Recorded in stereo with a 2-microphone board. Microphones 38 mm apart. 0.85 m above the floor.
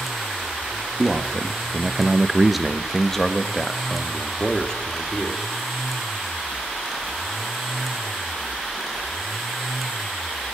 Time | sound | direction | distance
1.0 | a man speaking | 25° right (ahead or behind) | 1.6 m